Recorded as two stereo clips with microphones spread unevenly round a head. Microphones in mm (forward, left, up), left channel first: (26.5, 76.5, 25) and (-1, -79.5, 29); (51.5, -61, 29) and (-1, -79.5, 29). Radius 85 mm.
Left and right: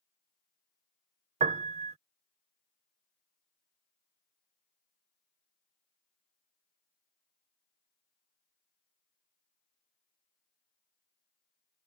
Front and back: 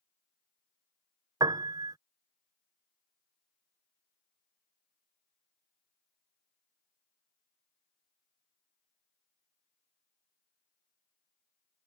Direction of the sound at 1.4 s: 155° right.